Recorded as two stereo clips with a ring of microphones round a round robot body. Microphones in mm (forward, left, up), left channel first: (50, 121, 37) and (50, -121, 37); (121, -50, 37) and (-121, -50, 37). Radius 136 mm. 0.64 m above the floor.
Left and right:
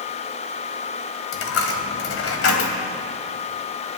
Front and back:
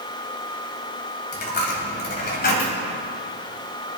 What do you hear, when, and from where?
1.3 s a dropped coin: 60° left, 1.7 m